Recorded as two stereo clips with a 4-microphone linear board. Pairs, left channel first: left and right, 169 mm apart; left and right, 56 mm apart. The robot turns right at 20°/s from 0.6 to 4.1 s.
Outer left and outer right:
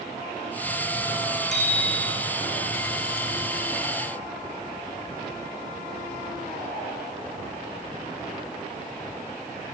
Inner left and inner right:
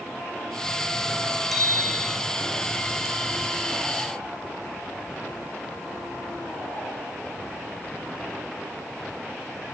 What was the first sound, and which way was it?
A bicycle bell, centre (ahead or behind).